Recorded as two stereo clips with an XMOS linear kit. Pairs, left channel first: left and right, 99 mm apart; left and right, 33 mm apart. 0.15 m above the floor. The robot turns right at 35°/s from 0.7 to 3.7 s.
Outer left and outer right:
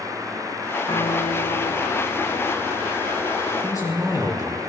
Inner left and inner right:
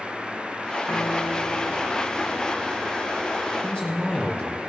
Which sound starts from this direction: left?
A man speaking, at 3.6 s.